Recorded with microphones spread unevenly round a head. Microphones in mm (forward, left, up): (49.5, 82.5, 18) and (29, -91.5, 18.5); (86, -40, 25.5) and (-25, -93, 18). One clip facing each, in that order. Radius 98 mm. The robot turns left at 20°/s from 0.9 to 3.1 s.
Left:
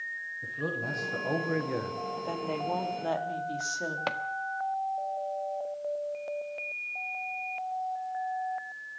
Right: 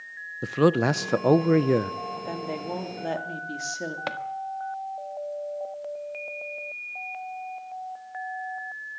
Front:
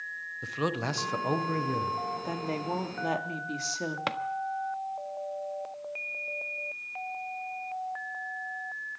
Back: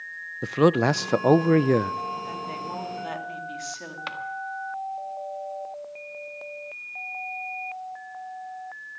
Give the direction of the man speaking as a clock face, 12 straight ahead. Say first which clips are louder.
Right 15 dB, back 12 dB; 4 o'clock.